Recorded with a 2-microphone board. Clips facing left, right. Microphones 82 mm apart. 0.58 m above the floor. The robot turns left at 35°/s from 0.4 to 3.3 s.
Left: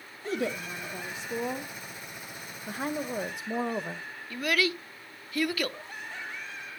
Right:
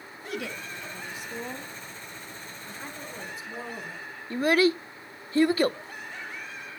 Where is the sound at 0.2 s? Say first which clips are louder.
Left 4 dB; 85° left, 1.3 m; by 1.7 s 40° left, 1.3 m.